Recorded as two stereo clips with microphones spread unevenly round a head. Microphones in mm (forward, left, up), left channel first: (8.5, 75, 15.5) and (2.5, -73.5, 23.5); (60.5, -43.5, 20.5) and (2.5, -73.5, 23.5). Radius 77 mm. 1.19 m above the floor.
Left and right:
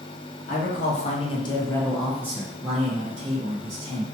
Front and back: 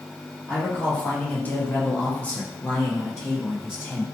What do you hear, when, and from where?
0.5 s a man speaking: 95° left, 0.9 m; by 4.0 s 60° right, 1.2 m